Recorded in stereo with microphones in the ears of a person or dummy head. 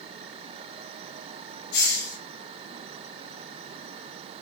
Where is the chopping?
No chopping in this recording.